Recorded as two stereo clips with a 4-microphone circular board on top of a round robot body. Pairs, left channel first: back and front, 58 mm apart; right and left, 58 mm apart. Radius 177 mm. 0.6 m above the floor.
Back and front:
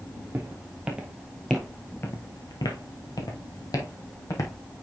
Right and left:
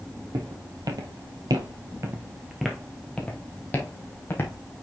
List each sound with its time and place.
0.3 s footsteps: 70° left, 1.7 m; by 4.6 s 150° right, 2.5 m